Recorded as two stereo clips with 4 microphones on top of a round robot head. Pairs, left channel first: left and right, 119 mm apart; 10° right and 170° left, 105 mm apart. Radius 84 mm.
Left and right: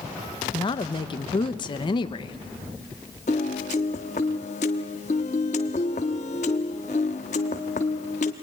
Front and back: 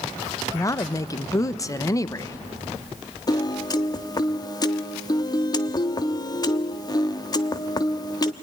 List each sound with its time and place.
0.5 s a woman speaking: 45° left, 0.8 m
3.3 s a piano: 45° left, 0.8 m